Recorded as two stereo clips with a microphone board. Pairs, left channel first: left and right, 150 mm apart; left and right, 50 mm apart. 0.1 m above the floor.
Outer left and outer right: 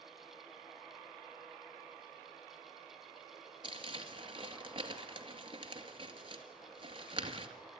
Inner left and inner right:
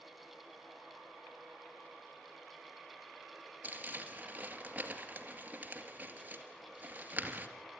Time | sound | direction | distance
3.6 | crumpling | 35° right (ahead or behind) | 2 m